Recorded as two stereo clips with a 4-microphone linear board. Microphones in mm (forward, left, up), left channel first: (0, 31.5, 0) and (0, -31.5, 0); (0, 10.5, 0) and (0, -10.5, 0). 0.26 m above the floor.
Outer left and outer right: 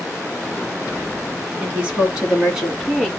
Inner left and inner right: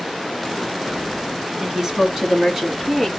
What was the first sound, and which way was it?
A woman speaking, 20° right (ahead or behind).